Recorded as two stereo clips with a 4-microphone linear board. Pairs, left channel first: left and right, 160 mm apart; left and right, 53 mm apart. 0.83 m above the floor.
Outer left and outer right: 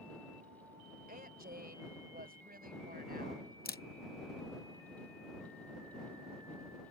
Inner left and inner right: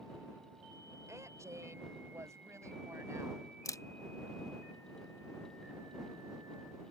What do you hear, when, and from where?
1.1 s a woman speaking: 65° right (ahead or behind); by 3.5 s 70° right (ahead or behind)
3.6 s a camera shutter: 75° left (ahead or behind)